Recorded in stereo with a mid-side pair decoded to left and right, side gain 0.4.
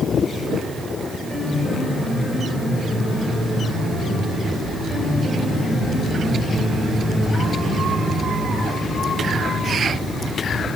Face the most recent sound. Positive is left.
turn(degrees=30)